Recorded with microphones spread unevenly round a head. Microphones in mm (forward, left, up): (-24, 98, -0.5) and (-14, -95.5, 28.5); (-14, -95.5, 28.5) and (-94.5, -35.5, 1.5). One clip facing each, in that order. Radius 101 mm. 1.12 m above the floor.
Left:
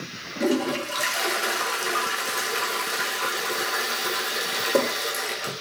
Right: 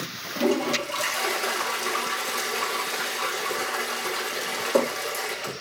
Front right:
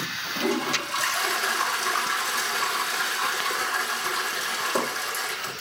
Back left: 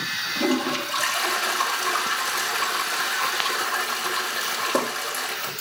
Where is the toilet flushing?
165° left, 5 m.